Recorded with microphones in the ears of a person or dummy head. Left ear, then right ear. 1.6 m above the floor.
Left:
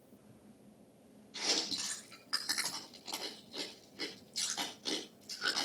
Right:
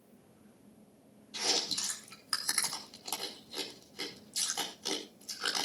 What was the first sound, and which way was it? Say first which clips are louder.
Chewing: right 3 dB; 85° right.